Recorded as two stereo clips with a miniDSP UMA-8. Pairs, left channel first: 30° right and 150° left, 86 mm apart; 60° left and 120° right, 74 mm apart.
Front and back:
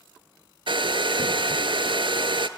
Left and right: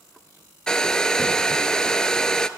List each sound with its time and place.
0.7 s a hair dryer: 140° left, 0.6 m